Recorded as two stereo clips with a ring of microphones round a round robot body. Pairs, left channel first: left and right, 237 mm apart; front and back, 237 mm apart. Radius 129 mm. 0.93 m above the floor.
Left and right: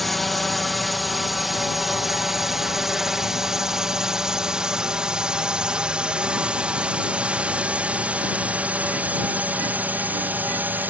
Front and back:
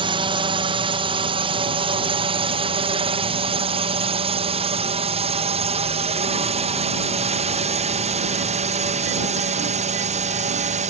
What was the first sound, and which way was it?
A drone, straight behind.